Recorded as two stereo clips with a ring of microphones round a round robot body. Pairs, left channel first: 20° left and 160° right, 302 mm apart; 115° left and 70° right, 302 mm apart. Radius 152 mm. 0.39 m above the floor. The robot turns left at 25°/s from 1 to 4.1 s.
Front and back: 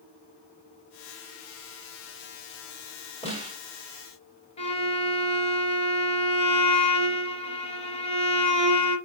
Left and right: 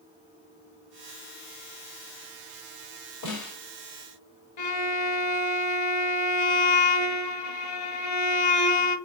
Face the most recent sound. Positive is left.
turn(degrees=95)